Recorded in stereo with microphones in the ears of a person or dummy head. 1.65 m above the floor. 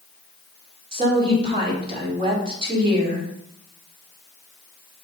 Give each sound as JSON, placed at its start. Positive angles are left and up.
{"t": 0.9, "sound": "a woman speaking", "side_deg": -35, "distance_m": 4.0}